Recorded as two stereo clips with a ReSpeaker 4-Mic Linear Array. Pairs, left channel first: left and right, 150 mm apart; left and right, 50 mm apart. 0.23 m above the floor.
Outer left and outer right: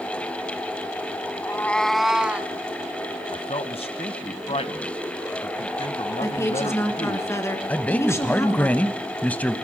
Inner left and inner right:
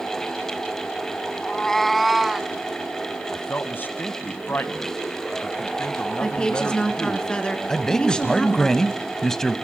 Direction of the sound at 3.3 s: 40° left (ahead or behind).